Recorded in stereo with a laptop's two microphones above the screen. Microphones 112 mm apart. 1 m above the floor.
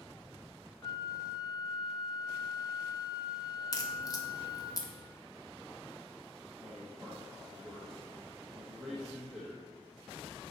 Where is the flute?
40° left (ahead or behind), 0.6 m.